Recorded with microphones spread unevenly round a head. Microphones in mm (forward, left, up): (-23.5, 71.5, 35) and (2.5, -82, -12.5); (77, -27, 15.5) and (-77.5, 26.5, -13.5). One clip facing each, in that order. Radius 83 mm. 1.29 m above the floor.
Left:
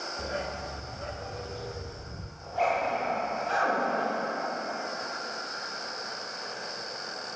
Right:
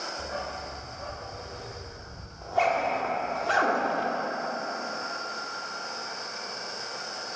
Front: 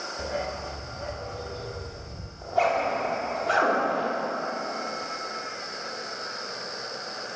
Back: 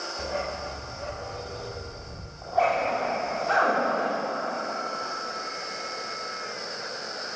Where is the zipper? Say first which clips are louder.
Right 2 dB, even; 70° right, 4.5 m.